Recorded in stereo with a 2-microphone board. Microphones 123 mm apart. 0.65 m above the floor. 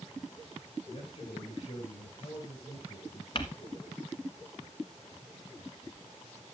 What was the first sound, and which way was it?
A man speaking, 50° left (ahead or behind).